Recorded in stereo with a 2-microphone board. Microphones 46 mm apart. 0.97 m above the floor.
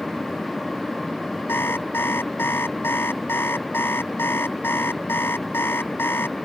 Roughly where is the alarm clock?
Left.